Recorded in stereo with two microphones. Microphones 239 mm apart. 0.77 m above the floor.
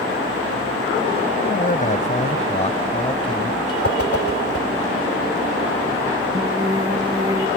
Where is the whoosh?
70° left (ahead or behind).